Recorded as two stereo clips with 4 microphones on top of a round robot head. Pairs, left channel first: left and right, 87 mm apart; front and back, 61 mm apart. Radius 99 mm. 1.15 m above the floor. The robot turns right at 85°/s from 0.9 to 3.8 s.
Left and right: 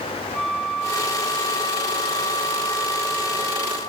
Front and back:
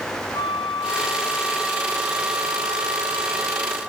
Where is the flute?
Straight ahead, 2.5 m; by 3.8 s 115° right, 2.5 m.